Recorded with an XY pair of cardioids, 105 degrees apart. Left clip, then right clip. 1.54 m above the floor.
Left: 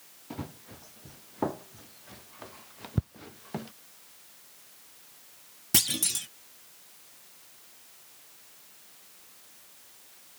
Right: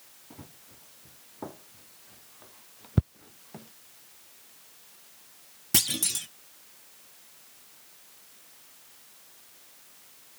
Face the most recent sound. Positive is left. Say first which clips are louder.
# even
turn(degrees=0)